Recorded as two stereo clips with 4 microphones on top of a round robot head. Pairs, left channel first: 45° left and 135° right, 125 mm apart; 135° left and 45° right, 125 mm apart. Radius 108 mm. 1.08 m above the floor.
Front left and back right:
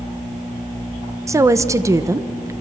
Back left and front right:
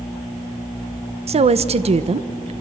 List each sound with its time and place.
1.3 s a woman speaking: 70° right, 1.1 m